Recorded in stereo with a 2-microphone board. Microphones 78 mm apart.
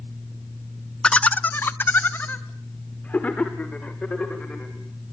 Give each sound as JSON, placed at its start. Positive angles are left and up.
{"t": 1.0, "sound": "laughter", "side_deg": 10, "distance_m": 0.7}